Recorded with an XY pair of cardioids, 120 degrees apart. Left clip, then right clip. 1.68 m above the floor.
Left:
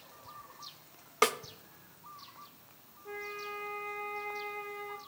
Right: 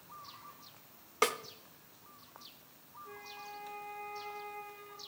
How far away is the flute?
About 0.8 m.